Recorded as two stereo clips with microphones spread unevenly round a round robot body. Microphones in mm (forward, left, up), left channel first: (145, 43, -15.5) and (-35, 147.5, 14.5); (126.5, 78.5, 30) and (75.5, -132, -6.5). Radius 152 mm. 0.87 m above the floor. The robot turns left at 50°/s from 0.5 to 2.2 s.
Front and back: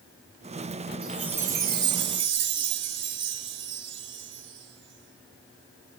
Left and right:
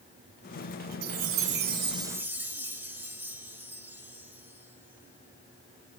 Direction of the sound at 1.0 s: 135° right.